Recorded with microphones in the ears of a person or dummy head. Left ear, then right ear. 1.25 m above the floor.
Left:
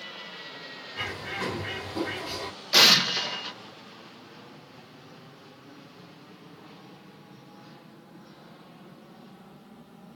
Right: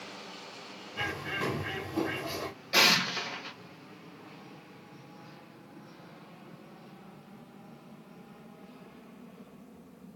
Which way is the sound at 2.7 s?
10° left (ahead or behind).